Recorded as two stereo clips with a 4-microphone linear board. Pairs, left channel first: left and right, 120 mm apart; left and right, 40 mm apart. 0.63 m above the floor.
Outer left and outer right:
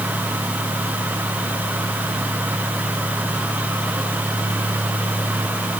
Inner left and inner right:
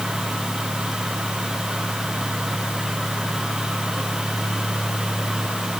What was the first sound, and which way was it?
Only background noise.